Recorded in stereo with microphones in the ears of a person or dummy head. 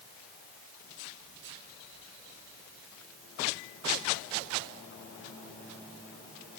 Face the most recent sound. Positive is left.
No sound to turn to.